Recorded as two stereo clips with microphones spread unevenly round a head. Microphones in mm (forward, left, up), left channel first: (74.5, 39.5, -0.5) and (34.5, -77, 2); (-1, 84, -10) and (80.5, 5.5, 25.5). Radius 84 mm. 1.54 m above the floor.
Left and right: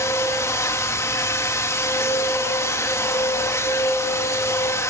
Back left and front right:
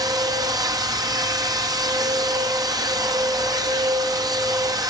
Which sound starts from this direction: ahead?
A machine running, at 0.0 s.